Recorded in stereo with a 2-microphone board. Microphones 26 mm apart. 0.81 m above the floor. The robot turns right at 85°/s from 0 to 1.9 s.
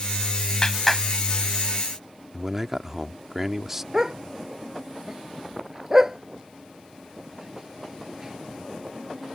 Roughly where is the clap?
Left.